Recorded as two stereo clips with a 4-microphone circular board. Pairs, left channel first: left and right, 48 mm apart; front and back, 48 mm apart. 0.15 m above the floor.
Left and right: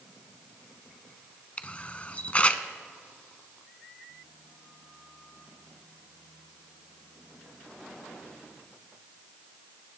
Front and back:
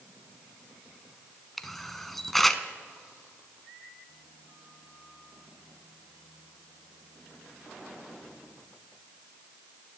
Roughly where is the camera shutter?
Left.